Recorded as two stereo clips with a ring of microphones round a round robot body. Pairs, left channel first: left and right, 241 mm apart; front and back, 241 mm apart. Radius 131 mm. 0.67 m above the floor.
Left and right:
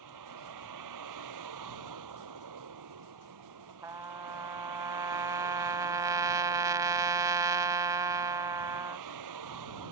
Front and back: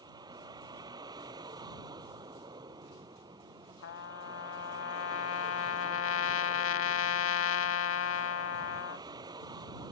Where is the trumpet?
15° right.